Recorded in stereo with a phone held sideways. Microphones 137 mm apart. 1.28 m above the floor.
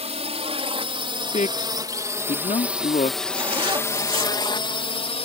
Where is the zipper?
40° right (ahead or behind).